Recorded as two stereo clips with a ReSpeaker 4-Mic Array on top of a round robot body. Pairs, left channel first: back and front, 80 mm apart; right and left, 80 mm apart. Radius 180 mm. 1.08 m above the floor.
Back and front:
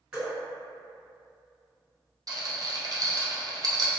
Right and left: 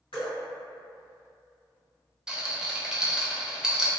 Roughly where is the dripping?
Right.